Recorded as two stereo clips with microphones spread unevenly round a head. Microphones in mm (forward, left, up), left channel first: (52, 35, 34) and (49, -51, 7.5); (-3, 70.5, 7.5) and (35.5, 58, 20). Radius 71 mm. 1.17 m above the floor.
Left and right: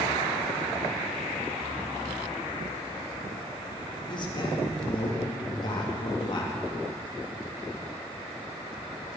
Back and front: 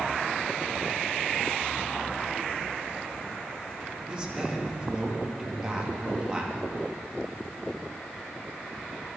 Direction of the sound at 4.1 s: 50° left.